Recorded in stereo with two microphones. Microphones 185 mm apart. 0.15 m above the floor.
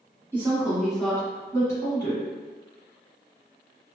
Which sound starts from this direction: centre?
A woman speaking, at 0.3 s.